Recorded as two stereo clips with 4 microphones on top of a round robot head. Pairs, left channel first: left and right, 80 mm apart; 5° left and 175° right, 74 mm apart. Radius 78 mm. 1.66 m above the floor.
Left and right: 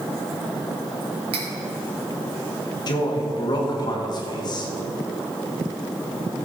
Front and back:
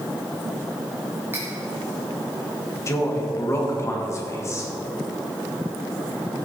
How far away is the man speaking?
About 2.5 m.